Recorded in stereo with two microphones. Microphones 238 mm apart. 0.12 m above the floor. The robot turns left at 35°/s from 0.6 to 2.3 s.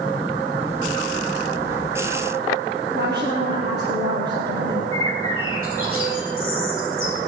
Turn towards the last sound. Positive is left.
turn(degrees=-65)  # may be behind; listen again after turning